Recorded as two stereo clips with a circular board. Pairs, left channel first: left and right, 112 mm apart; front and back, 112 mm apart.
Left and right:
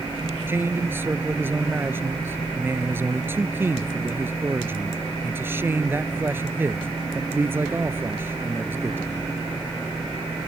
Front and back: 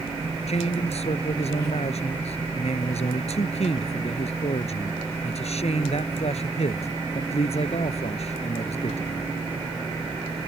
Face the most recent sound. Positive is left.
turn(degrees=-20)